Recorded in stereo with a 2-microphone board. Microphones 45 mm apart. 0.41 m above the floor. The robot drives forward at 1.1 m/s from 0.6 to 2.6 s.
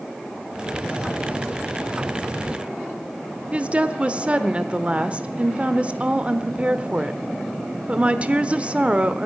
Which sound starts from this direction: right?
A woman speaking, at 3.5 s.